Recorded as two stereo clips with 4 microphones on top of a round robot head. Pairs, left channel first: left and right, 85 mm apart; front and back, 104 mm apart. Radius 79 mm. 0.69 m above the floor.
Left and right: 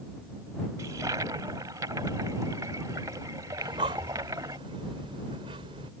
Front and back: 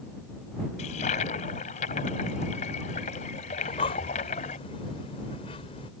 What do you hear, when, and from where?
0.8 s a toilet flushing: 25° right
3.6 s breathing: 45° right